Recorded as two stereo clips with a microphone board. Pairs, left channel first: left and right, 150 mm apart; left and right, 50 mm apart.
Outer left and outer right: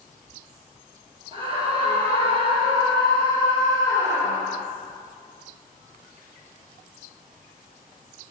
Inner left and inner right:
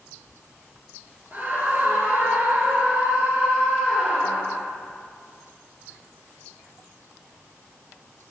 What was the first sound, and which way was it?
A scream, 35° right (ahead or behind).